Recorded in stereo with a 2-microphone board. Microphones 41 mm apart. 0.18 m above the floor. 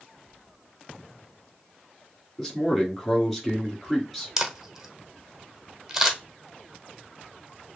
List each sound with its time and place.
2.4 s a man speaking: centre (ahead or behind), 2 m
4.4 s a camera shutter: 10° right (ahead or behind), 1.0 m